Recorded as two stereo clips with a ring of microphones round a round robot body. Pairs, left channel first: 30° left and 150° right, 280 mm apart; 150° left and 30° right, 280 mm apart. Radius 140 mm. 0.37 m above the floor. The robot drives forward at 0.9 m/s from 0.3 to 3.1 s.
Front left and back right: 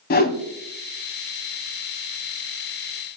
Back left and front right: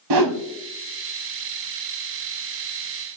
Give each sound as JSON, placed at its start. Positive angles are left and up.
{"t": 0.1, "sound": "a whoosh", "azimuth_deg": -30, "distance_m": 1.2}